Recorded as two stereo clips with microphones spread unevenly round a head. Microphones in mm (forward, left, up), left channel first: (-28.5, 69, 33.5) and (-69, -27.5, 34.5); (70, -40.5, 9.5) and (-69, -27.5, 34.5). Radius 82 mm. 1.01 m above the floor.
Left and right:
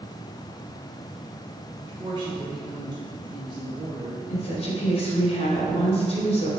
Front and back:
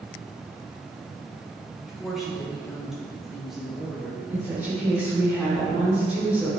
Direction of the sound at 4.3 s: 90° left.